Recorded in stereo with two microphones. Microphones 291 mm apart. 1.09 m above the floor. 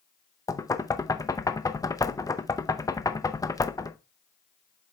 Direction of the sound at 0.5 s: 10° left (ahead or behind).